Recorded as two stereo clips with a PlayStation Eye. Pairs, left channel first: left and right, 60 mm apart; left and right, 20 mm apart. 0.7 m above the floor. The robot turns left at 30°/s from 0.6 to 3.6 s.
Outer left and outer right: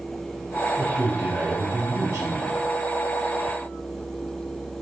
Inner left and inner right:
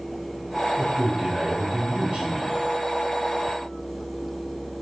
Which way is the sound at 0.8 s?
75° right.